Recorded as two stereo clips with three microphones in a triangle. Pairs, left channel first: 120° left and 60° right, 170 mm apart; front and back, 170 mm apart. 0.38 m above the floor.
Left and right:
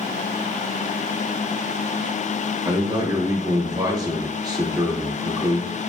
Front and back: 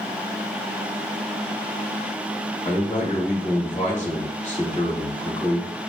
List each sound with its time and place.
2.6 s a man speaking: 5° right, 1.6 m